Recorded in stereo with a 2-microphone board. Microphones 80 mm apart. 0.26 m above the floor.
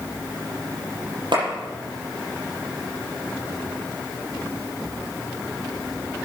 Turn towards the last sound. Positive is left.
turn(degrees=-70)  # may be behind; listen again after turning